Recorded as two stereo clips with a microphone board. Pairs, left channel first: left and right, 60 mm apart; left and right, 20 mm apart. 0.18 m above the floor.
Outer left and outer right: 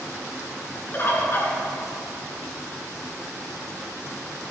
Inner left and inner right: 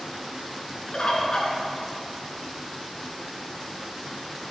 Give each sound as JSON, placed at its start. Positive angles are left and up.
{"t": 0.9, "sound": "a bird", "side_deg": 40, "distance_m": 2.0}